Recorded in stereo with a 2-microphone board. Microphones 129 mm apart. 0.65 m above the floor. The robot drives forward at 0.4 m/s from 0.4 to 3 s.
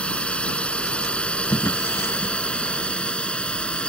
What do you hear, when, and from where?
0.0 s a drone: 10° left (ahead or behind)
1.5 s a drawer: 20° left (ahead or behind)